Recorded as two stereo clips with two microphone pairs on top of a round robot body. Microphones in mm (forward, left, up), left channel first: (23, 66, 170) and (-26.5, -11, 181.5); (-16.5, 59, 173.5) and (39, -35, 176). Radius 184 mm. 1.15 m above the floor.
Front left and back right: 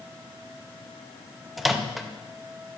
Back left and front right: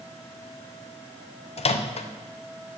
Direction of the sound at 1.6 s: 150° left.